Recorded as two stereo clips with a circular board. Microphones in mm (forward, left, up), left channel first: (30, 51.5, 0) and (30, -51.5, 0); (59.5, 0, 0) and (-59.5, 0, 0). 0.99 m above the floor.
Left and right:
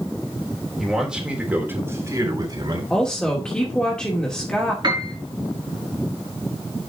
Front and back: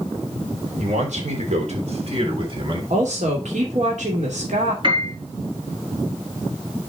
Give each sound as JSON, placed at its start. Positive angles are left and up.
{"t": 0.8, "sound": "a man speaking", "azimuth_deg": 180, "distance_m": 3.5}
{"t": 2.9, "sound": "a woman speaking", "azimuth_deg": 170, "distance_m": 2.5}
{"t": 4.8, "sound": "a piano", "azimuth_deg": -140, "distance_m": 4.0}